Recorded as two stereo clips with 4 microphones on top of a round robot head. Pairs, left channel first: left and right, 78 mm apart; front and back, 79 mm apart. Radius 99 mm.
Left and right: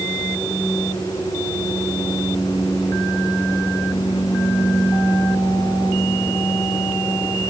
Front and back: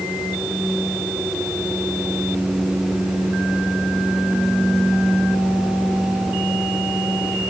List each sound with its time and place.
Only background noise.